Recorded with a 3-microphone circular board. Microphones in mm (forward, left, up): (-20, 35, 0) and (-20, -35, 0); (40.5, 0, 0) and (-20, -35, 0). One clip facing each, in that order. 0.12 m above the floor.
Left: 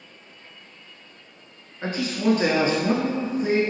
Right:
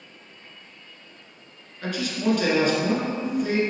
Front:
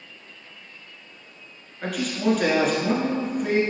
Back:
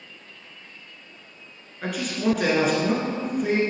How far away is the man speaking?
About 1.2 m.